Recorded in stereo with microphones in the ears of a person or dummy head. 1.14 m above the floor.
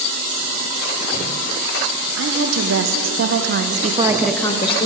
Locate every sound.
2.2 s a woman speaking: 65° right (ahead or behind), 1.6 m; by 4.9 s 35° left (ahead or behind), 0.8 m